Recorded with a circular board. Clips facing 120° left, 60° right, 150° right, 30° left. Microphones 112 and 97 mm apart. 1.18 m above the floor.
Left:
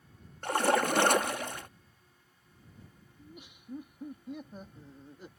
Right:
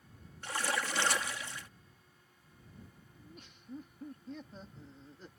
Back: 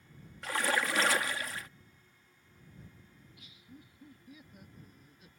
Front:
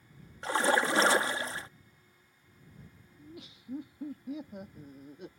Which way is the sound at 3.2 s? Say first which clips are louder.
Left 4 dB, front 10 dB; 45° left.